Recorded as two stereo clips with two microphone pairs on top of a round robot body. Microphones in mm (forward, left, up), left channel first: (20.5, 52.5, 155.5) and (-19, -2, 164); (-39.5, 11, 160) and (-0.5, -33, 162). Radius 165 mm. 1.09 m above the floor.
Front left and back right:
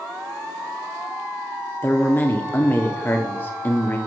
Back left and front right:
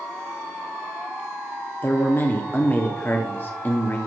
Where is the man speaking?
95° left, 1.0 m.